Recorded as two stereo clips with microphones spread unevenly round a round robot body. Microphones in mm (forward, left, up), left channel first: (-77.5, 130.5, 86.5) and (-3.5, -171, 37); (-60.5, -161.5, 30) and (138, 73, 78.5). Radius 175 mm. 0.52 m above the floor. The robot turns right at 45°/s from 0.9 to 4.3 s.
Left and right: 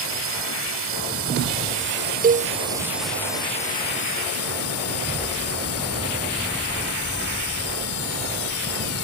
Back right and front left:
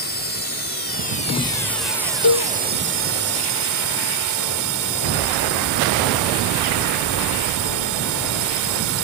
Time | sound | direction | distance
0.0 | a drone | 90° right | ?
2.2 | a cowbell | 135° right | ?